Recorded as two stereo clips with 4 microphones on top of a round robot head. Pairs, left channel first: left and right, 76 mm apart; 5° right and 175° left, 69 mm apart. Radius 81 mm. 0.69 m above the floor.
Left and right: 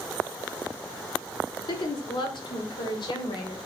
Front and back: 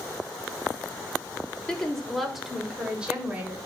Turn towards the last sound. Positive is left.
turn(degrees=105)